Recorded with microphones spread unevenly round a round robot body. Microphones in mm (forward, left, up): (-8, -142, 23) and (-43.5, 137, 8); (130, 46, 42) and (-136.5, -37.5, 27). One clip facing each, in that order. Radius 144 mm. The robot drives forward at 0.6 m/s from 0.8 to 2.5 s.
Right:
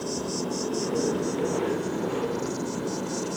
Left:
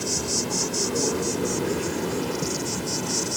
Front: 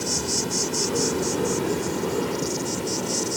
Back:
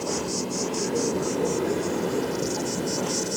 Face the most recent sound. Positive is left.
turn(degrees=90)